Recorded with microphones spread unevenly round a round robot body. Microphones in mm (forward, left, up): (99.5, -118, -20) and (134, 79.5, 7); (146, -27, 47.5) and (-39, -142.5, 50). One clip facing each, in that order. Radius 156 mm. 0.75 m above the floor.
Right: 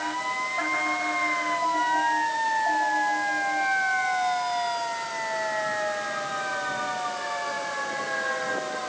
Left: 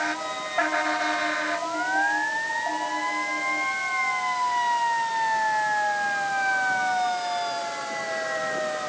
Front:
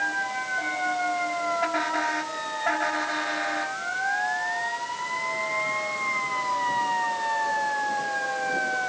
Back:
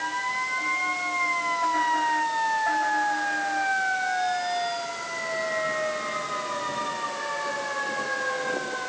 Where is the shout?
No shout in this recording.